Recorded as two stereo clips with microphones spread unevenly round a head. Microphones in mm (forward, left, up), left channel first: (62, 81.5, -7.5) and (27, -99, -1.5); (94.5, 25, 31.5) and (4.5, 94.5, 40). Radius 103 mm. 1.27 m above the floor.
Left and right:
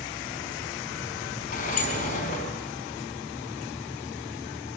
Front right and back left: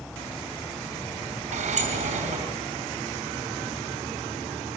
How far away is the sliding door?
About 4.5 m.